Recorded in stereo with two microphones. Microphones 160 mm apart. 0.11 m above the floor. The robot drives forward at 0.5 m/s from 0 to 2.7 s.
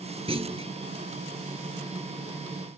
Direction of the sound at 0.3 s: 40° right (ahead or behind).